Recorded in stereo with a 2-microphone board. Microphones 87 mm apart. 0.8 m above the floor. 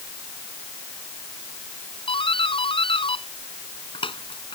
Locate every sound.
2.1 s a doorbell: 85° left